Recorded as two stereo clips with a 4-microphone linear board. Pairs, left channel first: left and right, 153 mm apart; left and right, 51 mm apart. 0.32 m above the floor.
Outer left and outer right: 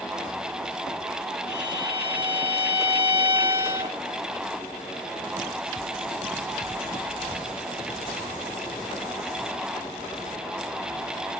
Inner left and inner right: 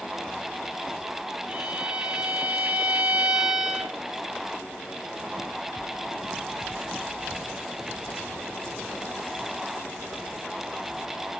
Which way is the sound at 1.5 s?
15° right (ahead or behind).